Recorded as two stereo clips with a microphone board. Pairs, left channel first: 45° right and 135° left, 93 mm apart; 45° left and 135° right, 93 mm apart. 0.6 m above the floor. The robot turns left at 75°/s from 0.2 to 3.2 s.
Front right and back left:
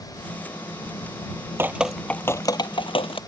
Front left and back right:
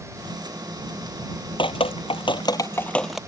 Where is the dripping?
70° left; by 3.2 s 50° right.